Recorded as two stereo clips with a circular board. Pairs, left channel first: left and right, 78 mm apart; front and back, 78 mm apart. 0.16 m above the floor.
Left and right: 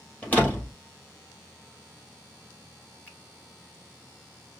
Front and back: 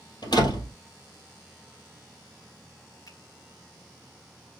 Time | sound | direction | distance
0.2 | a door slam | 20° left | 2.5 m
3.1 | a finger snap | 25° left | 2.0 m